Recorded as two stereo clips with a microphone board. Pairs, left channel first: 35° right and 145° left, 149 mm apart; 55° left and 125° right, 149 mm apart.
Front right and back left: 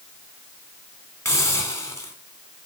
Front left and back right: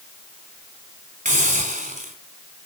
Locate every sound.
1.2 s a hiss: 105° right, 2 m